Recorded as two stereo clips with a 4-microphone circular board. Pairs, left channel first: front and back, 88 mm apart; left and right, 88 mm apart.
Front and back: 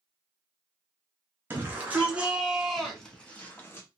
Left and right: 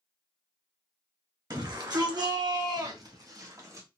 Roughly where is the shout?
Behind right.